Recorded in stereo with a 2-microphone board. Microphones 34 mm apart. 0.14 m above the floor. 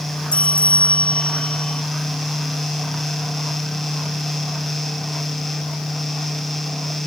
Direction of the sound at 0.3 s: 35° left (ahead or behind).